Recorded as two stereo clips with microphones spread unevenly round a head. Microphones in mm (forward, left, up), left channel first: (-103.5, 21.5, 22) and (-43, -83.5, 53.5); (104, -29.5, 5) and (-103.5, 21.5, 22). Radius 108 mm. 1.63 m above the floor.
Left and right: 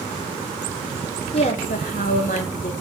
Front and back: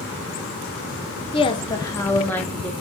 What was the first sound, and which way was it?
A woman speaking, 50° left.